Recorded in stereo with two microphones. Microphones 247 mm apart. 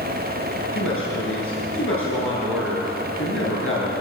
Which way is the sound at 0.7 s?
60° left (ahead or behind).